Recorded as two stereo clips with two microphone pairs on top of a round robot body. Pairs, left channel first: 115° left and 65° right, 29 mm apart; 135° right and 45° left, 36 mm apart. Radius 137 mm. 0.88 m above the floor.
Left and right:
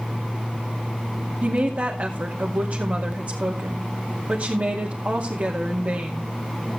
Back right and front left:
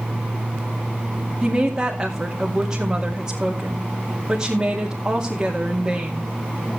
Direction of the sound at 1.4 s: 30° right.